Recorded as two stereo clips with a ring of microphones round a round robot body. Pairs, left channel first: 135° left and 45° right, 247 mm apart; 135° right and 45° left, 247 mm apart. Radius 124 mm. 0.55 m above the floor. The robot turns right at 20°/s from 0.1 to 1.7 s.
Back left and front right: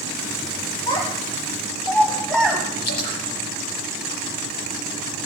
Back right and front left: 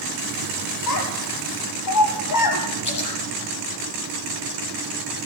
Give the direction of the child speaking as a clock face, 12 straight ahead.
5 o'clock.